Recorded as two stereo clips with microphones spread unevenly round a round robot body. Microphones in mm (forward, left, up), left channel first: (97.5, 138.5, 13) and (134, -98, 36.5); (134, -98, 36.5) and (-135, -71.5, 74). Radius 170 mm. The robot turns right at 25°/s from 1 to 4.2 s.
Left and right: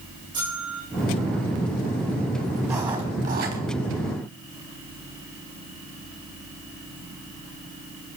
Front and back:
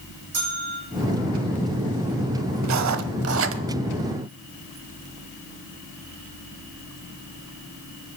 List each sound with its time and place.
0.3 s a bell: 160° right, 9.5 m
2.6 s writing: 165° right, 0.9 m; by 3.6 s 140° right, 0.9 m